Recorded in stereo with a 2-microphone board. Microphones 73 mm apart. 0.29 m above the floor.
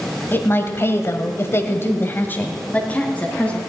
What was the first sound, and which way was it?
A woman speaking, 30° left (ahead or behind).